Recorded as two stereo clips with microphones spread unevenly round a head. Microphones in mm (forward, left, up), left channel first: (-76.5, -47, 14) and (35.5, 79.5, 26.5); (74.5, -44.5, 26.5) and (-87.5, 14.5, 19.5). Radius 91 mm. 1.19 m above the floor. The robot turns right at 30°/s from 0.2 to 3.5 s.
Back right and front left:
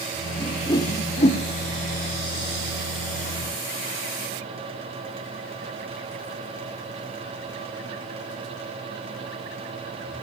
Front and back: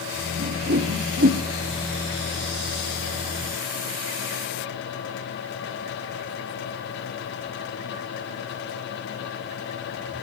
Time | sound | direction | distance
0.4 | a whoosh | 160° left | 1.0 m